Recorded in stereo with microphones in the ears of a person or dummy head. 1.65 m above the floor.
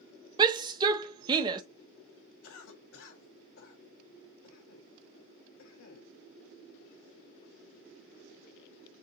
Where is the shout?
20° right (ahead or behind), 0.8 m.